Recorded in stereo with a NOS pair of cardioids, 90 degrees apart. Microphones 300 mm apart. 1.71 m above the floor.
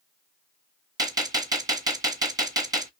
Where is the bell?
No bell in this recording.